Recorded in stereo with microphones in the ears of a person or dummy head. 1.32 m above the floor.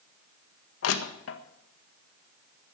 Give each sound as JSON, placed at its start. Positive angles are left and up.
{"t": 0.8, "sound": "crushing", "side_deg": 80, "distance_m": 1.5}